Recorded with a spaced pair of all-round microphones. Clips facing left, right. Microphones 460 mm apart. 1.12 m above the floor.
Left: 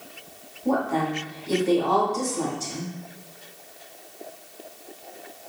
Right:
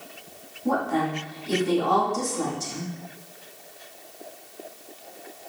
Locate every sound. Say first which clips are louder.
0.7 s a woman speaking: left 1 dB; 30° right (ahead or behind), 1.7 m